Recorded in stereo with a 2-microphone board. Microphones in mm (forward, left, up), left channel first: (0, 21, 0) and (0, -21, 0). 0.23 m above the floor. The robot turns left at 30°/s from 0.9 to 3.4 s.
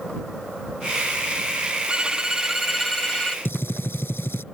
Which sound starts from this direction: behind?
A violin, at 1.9 s.